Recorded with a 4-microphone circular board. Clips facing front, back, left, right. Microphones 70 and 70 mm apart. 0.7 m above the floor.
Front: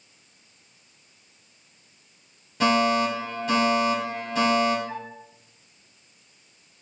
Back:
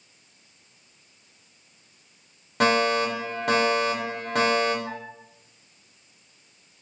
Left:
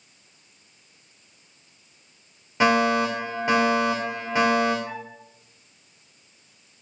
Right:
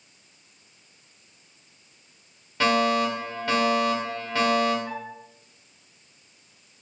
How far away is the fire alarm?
About 4 m.